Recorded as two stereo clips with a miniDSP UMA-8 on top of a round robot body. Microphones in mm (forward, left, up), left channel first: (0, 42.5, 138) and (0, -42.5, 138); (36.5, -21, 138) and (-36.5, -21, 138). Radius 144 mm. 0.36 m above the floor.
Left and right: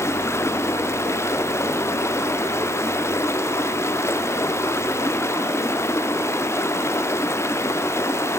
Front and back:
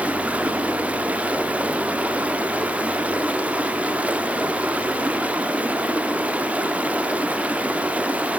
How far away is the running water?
About 0.8 m.